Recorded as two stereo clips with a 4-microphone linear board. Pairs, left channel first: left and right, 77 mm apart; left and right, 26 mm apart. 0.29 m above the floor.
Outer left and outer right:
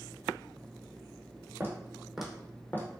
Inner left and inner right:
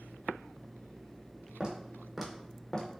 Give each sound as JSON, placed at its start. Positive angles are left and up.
{"t": 1.6, "sound": "footsteps", "side_deg": -35, "distance_m": 0.9}